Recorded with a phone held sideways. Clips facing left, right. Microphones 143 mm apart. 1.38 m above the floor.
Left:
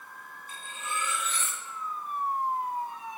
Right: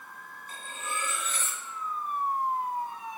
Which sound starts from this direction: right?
Cutlery clinking, at 0.5 s.